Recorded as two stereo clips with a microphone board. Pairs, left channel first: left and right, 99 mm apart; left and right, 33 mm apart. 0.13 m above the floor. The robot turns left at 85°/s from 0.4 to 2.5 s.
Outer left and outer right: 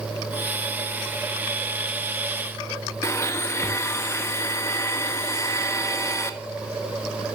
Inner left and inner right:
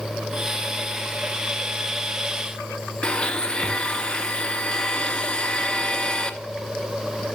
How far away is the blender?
About 0.6 m.